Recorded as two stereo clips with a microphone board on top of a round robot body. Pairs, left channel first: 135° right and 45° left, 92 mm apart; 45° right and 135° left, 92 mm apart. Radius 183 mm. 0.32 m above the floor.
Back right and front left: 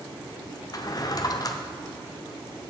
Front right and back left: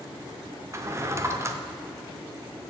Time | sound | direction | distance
0.7 | a drawer | 170° right | 0.9 m